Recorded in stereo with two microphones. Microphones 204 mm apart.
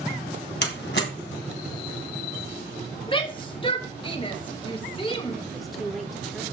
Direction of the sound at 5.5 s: Centre (ahead or behind).